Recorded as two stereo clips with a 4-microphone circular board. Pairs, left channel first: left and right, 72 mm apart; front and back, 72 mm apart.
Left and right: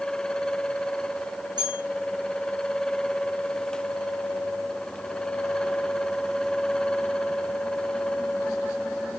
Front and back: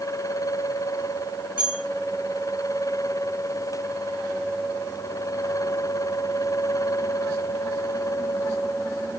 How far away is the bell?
About 3.5 m.